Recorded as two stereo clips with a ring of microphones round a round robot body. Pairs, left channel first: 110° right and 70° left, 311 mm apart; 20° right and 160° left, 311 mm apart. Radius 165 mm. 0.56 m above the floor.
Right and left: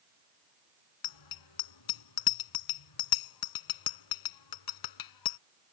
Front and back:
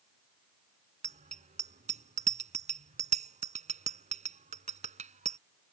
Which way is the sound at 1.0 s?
135° right.